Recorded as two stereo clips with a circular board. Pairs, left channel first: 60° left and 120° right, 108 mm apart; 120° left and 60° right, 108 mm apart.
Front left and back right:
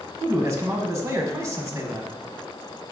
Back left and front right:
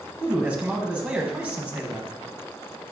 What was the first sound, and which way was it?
A man speaking, 125° right.